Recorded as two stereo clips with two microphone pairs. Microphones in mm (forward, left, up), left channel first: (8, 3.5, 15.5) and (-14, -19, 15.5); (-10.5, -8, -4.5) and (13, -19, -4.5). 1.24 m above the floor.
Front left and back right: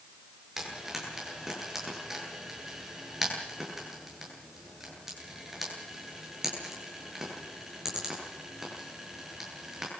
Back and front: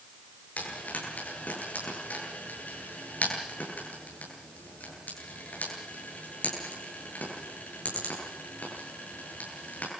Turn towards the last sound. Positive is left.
turn(degrees=145)